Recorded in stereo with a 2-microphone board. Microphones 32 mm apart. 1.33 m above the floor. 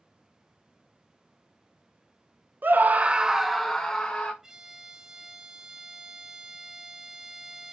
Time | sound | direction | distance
2.6 | a scream | 70° right (ahead or behind) | 0.9 m
4.4 | a violin | 15° right (ahead or behind) | 1.2 m